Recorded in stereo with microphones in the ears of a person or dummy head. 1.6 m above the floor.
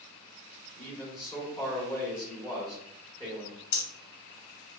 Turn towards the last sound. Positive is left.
turn(degrees=75)  # may be behind; listen again after turning